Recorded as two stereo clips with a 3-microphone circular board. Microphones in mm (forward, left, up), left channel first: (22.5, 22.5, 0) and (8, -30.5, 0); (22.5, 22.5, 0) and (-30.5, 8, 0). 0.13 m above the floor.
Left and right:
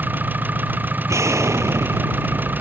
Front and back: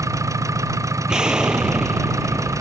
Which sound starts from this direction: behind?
An engine running, at 0.0 s.